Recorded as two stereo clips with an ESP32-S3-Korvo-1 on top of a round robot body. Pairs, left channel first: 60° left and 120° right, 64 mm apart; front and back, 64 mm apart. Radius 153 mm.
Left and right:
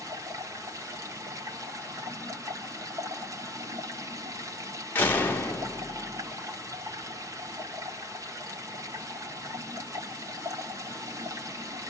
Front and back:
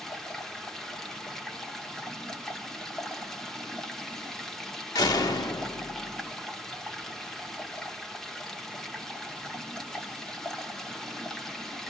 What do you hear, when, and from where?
0.0 s running water: 85° right, 1.5 m
5.0 s a door slam: straight ahead, 1.3 m